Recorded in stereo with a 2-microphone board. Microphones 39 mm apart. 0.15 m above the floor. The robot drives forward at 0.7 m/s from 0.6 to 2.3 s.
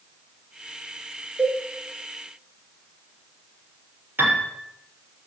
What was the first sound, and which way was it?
A cowbell, 80° right.